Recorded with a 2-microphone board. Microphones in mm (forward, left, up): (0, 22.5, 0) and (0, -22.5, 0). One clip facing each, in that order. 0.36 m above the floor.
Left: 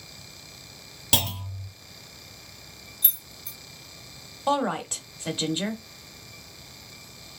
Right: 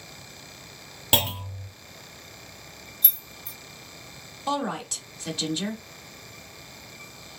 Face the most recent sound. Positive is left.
turn(degrees=25)  # may be behind; listen again after turning